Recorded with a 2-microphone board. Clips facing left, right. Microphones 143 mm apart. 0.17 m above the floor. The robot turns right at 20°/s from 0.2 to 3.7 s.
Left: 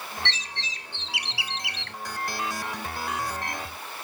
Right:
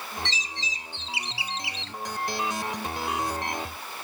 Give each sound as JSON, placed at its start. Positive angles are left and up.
{"t": 0.2, "sound": "a bird", "azimuth_deg": 75}